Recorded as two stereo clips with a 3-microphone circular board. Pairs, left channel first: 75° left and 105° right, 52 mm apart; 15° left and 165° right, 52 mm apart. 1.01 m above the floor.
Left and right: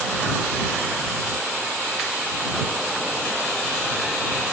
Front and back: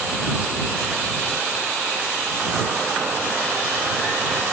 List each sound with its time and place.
Only background noise.